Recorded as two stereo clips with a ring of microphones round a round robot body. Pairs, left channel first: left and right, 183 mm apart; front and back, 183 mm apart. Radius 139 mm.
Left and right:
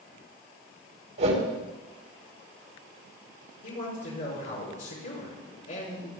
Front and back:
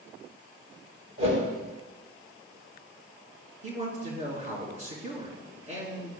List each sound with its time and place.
1.2 s a whoosh: 115° right, 2.5 m
3.6 s a man speaking: 125° left, 4.5 m